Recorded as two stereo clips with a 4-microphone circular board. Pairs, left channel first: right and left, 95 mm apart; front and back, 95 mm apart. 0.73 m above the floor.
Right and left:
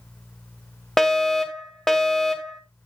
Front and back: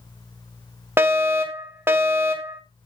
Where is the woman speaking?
No woman speaking in this recording.